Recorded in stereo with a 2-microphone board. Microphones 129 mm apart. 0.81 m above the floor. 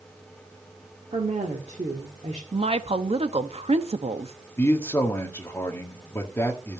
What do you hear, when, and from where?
1.1 s a woman speaking: 55° right (ahead or behind), 1.7 m
2.5 s a woman speaking: 50° right (ahead or behind), 0.8 m
4.6 s a man speaking: 20° left (ahead or behind), 1.8 m